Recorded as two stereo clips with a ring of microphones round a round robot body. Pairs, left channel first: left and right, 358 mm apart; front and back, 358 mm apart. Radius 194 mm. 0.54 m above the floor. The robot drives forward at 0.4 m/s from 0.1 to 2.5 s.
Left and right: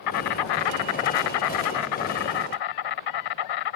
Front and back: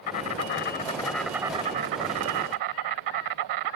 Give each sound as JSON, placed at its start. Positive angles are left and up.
{"t": 0.0, "sound": "an insect", "azimuth_deg": 50}